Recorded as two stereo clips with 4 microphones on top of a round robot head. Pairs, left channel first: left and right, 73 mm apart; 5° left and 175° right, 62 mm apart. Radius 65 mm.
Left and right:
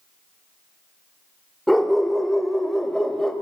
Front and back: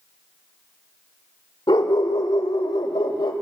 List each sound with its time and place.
1.7 s a dog barking: straight ahead, 1.2 m; by 3.3 s 5° left, 1.9 m